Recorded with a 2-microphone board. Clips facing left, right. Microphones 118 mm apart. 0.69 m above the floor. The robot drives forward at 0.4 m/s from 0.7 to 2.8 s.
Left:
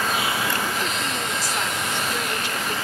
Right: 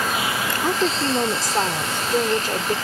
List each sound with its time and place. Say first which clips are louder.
0.6 s a woman speaking: right 6 dB; 55° right (ahead or behind); by 2.8 s 40° right (ahead or behind)